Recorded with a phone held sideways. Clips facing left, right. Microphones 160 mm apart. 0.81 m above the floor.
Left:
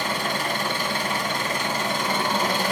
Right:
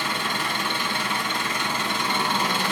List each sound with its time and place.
0.0 s an engine running: 45° left (ahead or behind), 1.9 m